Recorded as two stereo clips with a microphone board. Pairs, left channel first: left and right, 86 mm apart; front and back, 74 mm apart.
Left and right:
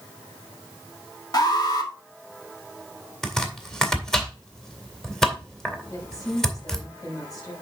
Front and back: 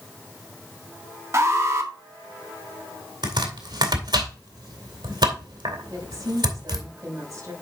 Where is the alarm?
130° left, 2 m.